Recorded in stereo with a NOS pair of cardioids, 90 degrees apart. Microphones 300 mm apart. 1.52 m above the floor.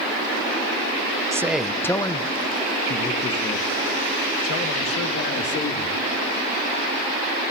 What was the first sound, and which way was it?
A man speaking, 10° right.